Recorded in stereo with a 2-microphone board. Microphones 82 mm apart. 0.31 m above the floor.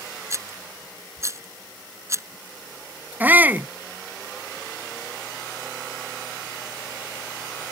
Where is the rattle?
40° right (ahead or behind).